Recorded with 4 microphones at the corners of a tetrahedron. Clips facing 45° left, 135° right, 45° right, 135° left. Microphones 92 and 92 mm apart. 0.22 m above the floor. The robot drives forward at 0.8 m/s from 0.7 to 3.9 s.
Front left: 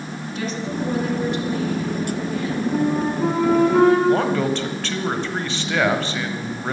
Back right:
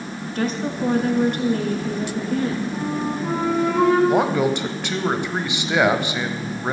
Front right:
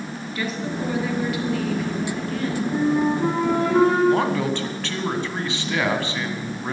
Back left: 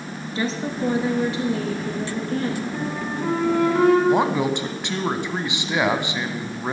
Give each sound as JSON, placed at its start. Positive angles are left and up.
{"t": 0.3, "sound": "a woman speaking", "azimuth_deg": -170, "distance_m": 2.5}
{"t": 2.7, "sound": "a flute", "azimuth_deg": 15, "distance_m": 9.0}
{"t": 4.1, "sound": "a man speaking", "azimuth_deg": 170, "distance_m": 1.2}